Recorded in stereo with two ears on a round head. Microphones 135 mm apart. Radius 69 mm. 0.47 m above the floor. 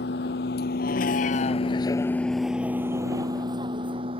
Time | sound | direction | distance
0.0 | a vehicle | 85° left | ?